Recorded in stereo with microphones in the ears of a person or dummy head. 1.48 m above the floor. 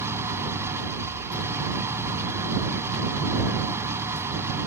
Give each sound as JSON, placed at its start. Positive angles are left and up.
{"t": 0.0, "sound": "an engine running", "side_deg": -20}